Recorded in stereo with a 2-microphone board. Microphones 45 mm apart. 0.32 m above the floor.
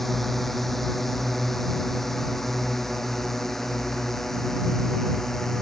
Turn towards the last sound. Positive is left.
turn(degrees=5)  # may be behind; listen again after turning